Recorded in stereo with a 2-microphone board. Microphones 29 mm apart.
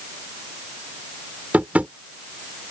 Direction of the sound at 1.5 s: 55° right (ahead or behind).